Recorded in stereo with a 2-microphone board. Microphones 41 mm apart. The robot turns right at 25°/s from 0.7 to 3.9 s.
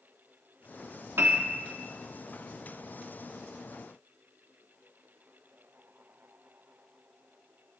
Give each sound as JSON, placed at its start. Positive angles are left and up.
{"t": 1.2, "sound": "a piano", "side_deg": -75, "distance_m": 1.1}